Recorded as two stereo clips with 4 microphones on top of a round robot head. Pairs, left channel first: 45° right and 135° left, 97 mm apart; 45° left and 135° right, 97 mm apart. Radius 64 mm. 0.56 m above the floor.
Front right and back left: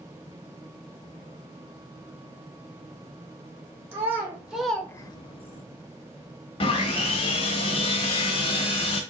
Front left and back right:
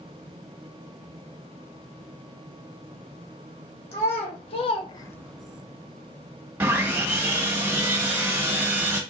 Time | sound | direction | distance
3.9 | a child speaking | 70° left | 1.9 m
6.6 | sawing | 65° right | 1.3 m